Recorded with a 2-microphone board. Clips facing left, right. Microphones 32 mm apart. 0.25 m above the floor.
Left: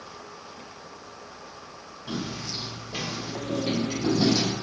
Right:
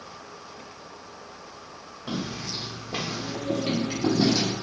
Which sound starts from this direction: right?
Footsteps, at 2.1 s.